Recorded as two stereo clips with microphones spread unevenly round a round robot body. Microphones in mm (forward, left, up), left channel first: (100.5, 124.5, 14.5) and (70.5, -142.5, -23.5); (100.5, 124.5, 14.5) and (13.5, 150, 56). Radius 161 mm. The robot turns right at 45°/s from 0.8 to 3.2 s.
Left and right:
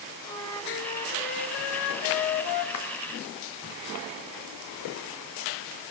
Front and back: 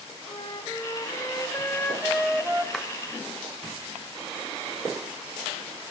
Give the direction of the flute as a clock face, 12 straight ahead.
12 o'clock.